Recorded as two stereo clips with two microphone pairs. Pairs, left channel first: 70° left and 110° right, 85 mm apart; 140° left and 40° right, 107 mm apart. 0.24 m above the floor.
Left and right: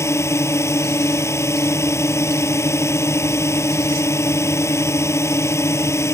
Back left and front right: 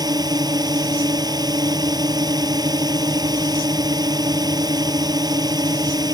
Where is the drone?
15° left.